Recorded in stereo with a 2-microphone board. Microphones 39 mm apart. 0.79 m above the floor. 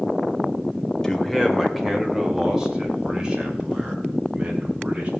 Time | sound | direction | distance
1.0 | a man speaking | 10° left (ahead or behind) | 2.5 m